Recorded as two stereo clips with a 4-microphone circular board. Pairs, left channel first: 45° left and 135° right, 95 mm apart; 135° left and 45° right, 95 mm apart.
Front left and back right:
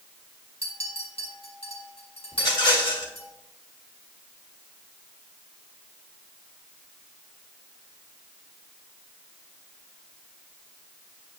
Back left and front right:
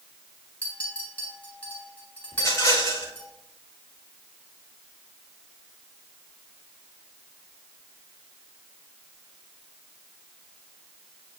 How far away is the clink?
About 3.5 m.